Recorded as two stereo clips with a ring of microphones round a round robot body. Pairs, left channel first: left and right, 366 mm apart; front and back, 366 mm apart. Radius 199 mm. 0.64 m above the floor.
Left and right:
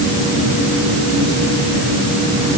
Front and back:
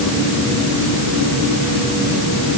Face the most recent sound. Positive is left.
No sound to turn to.